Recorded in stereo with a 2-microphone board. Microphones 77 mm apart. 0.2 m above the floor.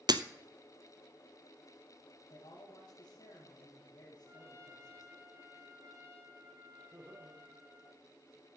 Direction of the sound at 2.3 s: 80° left.